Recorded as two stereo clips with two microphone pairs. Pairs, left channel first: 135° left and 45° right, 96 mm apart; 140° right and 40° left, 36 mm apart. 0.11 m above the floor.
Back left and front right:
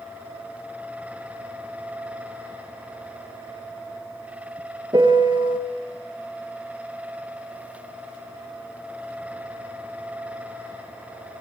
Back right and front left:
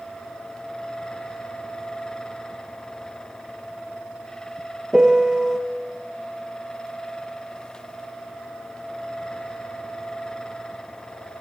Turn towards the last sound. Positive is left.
turn(degrees=-25)